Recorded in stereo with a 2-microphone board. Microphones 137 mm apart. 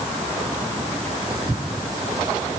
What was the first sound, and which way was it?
Only background noise.